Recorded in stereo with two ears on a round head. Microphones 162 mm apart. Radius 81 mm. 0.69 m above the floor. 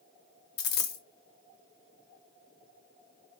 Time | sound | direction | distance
0.6 | a dropped coin | 55° left (ahead or behind) | 0.8 m